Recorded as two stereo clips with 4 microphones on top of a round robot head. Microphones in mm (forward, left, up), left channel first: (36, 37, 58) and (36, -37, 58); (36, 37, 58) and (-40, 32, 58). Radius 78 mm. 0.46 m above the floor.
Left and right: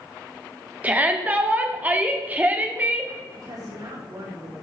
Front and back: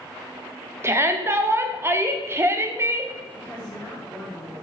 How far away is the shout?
About 1.5 m.